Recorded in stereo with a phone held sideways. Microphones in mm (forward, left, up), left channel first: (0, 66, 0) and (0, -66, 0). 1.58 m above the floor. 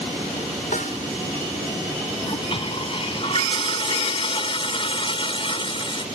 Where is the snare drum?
90° left.